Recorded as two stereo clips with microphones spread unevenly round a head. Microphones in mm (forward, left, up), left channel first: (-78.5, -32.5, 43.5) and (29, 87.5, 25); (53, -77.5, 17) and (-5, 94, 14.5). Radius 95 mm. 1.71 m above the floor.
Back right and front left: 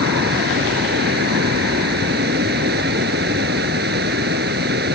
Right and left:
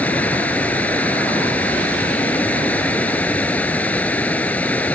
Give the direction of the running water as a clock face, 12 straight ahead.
12 o'clock.